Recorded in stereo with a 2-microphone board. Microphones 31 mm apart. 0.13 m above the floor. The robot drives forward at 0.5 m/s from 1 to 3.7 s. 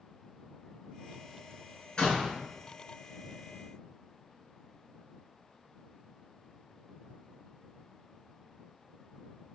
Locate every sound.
2.0 s a door slam: 30° left (ahead or behind), 1.0 m; by 2.4 s 35° left (ahead or behind), 0.9 m